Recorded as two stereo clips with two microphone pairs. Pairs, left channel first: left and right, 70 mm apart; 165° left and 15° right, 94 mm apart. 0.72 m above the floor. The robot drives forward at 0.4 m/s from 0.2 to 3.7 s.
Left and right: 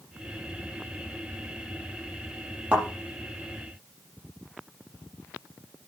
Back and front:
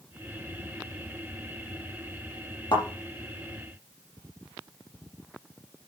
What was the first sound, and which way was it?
A thud, 160° right.